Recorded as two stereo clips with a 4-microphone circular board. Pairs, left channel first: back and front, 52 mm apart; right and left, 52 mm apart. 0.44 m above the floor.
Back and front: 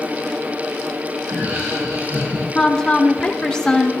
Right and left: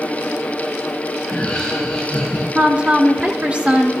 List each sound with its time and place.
1.2 s laughter: 25° right, 2 m; by 2.5 s 35° right, 4 m
2.5 s a woman speaking: 120° left, 1.0 m